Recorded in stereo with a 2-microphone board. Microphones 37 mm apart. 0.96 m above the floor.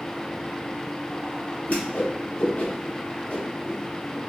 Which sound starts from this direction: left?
A whoosh, at 1.7 s.